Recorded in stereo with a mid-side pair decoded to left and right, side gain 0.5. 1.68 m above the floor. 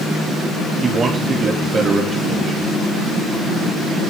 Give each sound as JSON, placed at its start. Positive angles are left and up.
{"t": 0.8, "sound": "a man speaking", "azimuth_deg": -40, "distance_m": 3.0}